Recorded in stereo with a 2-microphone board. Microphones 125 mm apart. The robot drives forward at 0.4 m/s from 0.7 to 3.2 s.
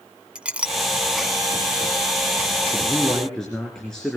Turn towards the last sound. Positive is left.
turn(degrees=5)  # may be behind; listen again after turning